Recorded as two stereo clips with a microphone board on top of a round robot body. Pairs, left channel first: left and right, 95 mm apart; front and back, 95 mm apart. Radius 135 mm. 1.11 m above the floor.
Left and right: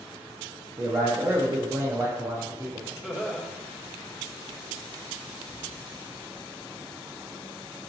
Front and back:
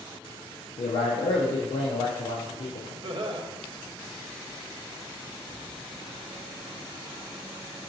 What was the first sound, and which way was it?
A man speaking, 25° right.